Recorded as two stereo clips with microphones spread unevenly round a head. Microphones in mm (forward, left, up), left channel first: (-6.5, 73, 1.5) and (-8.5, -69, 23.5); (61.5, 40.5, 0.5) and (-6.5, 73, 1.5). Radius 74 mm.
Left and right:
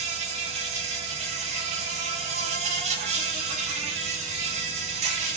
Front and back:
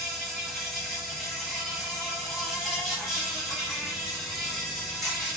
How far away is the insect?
About 1.0 m.